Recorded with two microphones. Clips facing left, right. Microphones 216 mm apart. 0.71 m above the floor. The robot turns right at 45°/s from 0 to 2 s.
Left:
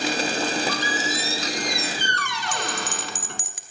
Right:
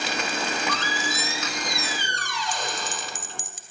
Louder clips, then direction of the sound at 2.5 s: Left 4 dB; 70° left (ahead or behind).